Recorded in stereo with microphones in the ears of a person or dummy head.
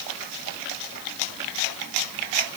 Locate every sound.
Only background noise.